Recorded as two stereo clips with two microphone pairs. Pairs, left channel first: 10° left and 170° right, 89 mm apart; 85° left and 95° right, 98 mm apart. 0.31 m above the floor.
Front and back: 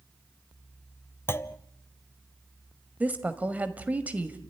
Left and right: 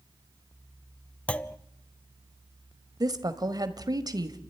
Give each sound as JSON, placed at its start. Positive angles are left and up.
{"t": 1.3, "sound": "a clunk", "azimuth_deg": 20, "distance_m": 0.6}
{"t": 3.0, "sound": "a woman speaking", "azimuth_deg": -105, "distance_m": 1.5}